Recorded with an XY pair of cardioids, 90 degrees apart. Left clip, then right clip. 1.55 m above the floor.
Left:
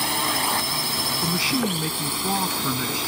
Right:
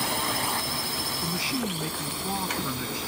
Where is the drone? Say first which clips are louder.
Left 4 dB; 35° left; by 3.1 s 60° left.